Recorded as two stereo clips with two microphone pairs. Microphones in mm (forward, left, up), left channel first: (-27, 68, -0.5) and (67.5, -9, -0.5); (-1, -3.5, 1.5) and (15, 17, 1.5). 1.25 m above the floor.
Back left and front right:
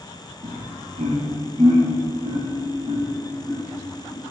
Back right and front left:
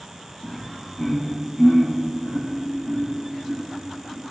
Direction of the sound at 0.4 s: 50° right.